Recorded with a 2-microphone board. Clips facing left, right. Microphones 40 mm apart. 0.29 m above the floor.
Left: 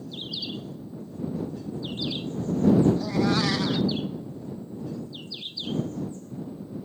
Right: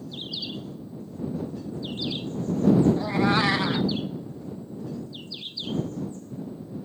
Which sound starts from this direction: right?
A cat meowing, at 3.0 s.